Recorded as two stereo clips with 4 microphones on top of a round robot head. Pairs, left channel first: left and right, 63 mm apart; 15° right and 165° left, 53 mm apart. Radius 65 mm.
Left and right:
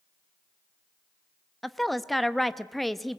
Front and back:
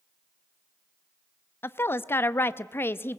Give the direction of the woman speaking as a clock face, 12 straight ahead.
12 o'clock.